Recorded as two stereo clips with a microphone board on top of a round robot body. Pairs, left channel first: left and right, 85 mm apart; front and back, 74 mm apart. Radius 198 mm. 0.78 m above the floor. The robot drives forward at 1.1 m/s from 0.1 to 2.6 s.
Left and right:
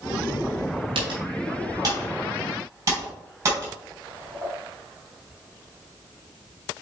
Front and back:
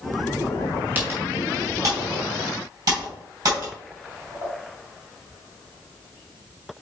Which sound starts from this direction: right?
Typing on a keyboard, at 0.9 s.